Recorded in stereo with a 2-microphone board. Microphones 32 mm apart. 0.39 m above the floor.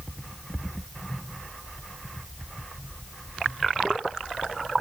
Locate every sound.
Only background noise.